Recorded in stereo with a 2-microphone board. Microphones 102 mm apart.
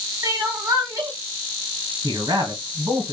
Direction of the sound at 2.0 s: 40° right (ahead or behind).